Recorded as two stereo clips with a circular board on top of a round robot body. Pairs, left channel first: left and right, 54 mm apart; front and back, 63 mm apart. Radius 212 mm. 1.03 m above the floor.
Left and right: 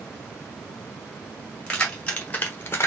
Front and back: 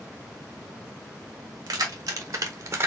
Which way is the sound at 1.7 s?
165° left.